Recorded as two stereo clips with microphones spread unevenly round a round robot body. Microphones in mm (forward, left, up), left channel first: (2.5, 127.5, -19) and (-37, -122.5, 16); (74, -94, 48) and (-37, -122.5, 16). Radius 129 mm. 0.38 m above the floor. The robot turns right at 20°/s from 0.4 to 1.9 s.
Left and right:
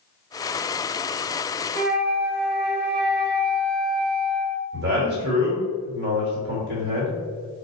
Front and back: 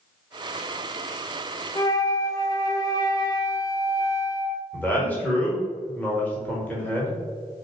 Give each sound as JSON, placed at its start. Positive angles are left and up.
{"t": 1.8, "sound": "a flute", "azimuth_deg": -55, "distance_m": 0.6}
{"t": 4.7, "sound": "a man speaking", "azimuth_deg": -75, "distance_m": 1.3}